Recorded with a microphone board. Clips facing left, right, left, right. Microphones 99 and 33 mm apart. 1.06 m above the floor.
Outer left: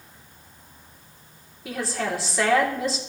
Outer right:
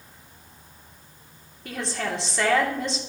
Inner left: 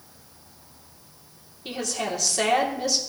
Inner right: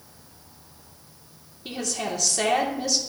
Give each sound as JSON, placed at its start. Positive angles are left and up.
{"t": 1.6, "sound": "a woman speaking", "side_deg": 5, "distance_m": 2.5}